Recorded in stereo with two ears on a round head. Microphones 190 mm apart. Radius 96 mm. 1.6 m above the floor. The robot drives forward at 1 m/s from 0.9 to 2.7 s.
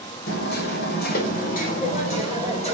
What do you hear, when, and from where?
0.3 s hammering: 50° left (ahead or behind), 3 m; by 2.8 s 30° left (ahead or behind), 4 m